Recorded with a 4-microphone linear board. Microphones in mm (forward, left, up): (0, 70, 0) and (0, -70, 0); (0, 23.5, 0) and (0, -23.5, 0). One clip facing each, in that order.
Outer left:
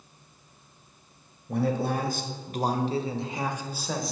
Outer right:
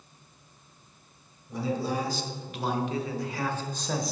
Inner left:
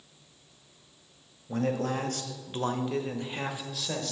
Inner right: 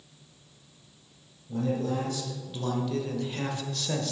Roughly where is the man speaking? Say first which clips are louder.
Outer left 3 dB, even; left.